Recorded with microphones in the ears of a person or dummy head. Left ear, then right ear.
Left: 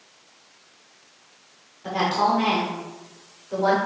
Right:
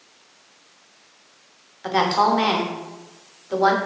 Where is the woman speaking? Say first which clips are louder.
Right 3 dB; 60° right (ahead or behind), 0.7 m.